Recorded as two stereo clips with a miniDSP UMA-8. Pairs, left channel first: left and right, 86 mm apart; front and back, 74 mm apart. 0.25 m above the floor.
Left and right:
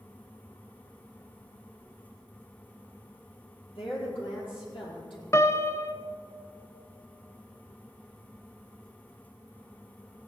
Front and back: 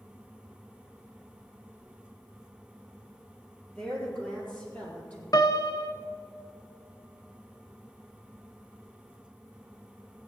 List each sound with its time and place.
3.8 s a woman speaking: 80° left, 5 m; by 5.2 s 70° left, 6.5 m
5.3 s a piano: 30° left, 0.6 m